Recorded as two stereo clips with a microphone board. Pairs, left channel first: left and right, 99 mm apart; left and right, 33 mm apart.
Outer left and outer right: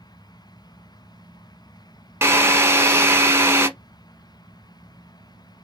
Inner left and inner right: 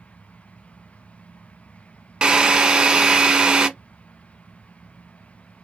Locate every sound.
2.2 s a drill: 25° right (ahead or behind), 0.8 m